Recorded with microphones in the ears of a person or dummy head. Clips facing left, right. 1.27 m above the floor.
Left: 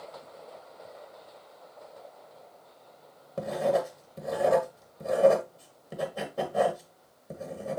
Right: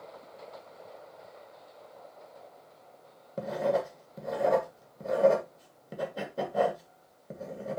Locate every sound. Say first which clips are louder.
3.4 s writing: left 2 dB; centre (ahead or behind), 2 m